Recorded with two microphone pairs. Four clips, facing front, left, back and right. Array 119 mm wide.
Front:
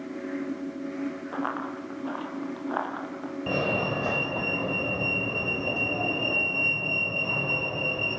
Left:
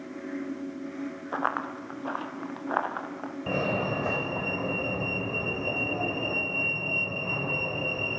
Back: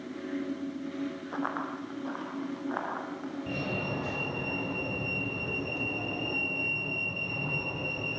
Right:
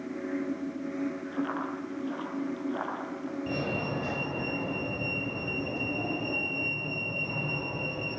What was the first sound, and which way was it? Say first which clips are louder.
Running footsteps: left 2 dB, front 1 dB; 80° left.